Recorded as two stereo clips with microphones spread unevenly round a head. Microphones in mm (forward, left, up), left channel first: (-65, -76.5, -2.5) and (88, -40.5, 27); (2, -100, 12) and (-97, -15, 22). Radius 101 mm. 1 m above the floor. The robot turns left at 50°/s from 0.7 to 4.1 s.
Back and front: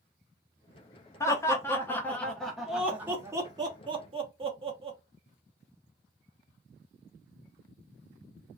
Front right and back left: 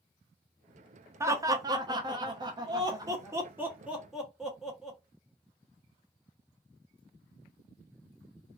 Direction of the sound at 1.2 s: 165° right.